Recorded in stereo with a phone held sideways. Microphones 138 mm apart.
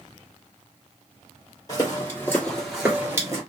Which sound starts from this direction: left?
Footsteps, at 1.7 s.